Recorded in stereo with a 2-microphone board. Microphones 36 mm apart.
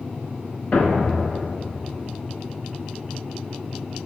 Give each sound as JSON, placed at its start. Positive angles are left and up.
{"t": 0.7, "sound": "a thud", "side_deg": 40, "distance_m": 0.9}